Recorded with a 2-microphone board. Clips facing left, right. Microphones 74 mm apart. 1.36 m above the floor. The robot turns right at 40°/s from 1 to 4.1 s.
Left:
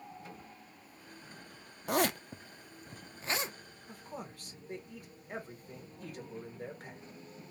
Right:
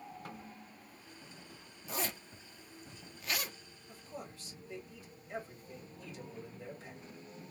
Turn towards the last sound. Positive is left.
turn(degrees=50)  # may be behind; listen again after turning